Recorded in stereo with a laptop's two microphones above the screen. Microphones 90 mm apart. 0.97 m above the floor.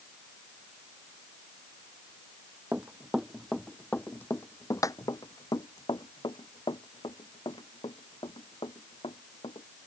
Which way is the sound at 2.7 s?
20° right (ahead or behind).